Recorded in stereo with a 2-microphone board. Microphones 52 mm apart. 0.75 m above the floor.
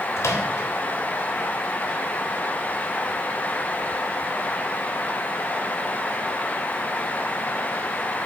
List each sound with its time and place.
0.2 s a microwave: 65° left (ahead or behind), 3 m